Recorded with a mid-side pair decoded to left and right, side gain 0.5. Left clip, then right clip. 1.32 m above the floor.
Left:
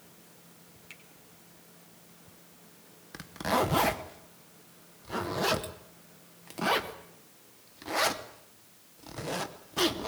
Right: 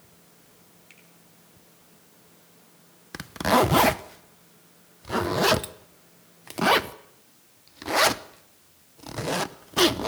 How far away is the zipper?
About 0.9 m.